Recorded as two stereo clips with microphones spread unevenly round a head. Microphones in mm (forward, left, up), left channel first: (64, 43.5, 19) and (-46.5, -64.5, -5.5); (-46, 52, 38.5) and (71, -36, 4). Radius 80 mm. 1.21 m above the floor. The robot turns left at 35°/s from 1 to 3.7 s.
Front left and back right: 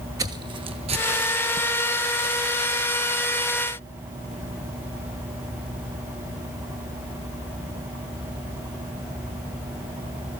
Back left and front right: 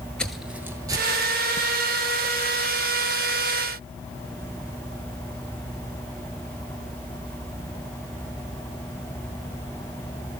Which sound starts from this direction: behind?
Footsteps, at 0.2 s.